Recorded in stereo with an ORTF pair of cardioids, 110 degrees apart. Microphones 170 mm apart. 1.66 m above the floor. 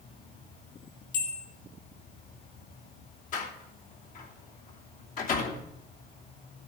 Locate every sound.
0.0 s an insect: 60° left, 5 m
1.1 s a bell: 60° left, 2.5 m
3.3 s a door slam: 50° left, 3 m